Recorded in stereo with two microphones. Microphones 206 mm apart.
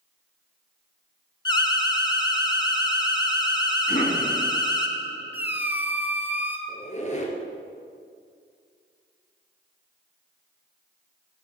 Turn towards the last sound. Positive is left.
turn(degrees=35)  # may be behind; listen again after turning